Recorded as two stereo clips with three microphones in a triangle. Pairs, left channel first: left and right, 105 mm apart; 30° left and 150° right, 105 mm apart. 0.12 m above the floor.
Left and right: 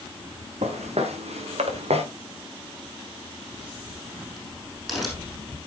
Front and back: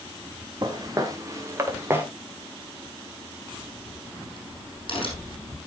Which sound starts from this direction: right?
Footsteps, at 0.6 s.